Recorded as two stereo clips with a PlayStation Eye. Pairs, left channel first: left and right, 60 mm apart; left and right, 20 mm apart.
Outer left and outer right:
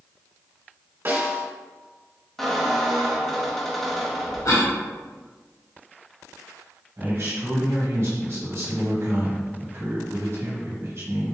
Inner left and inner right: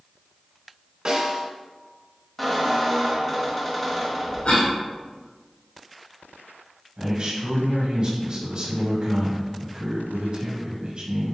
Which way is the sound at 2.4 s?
5° left (ahead or behind).